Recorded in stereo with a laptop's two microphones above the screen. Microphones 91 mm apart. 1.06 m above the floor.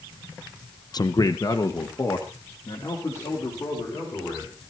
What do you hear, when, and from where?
0.9 s a man speaking: 45° left (ahead or behind), 0.5 m; by 4.5 s 30° left (ahead or behind), 5 m